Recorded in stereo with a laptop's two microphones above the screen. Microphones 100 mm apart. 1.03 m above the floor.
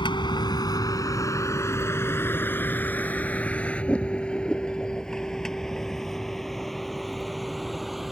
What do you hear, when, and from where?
0.0 s a vehicle: 50° left (ahead or behind); by 8.1 s centre (ahead or behind)